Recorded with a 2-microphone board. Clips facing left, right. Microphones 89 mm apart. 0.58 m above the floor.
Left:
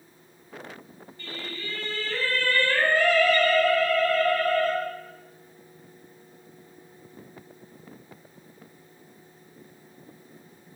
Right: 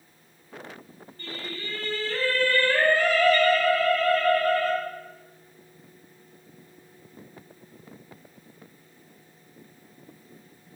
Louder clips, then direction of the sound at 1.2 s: Right 1 dB; 50° right (ahead or behind).